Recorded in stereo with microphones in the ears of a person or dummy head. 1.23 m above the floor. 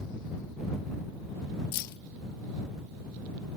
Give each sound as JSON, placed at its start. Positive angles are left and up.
{"t": 1.7, "sound": "keys jangling", "side_deg": 60}